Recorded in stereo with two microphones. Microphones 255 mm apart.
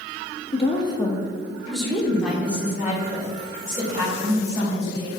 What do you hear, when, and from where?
0.5 s a woman speaking: 25° left (ahead or behind), 1.2 m; by 5.1 s 15° right (ahead or behind), 4.5 m